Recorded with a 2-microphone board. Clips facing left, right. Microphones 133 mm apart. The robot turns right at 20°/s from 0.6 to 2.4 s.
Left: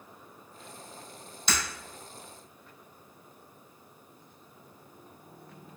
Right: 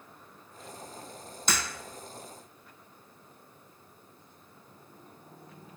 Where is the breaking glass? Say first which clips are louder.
Even; 45° right (ahead or behind), 1.6 m.